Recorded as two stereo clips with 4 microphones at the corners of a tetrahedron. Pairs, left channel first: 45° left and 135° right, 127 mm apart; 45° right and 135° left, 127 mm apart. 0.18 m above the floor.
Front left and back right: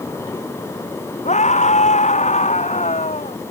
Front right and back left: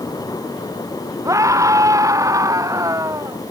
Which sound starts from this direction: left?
A scream, at 1.2 s.